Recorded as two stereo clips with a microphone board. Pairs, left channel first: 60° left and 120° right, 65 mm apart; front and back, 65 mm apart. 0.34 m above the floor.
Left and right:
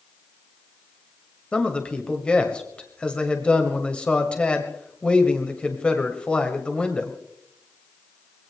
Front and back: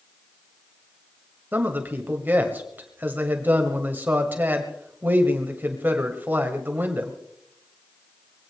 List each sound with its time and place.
1.5 s a man speaking: 130° left, 1.7 m